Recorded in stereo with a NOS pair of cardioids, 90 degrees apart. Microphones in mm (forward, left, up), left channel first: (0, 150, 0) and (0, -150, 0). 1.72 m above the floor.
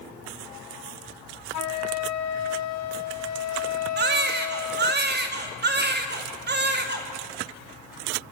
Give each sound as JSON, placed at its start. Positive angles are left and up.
{"t": 1.5, "sound": "a flute", "azimuth_deg": 60, "distance_m": 1.6}
{"t": 4.0, "sound": "a baby crying", "azimuth_deg": -35, "distance_m": 3.0}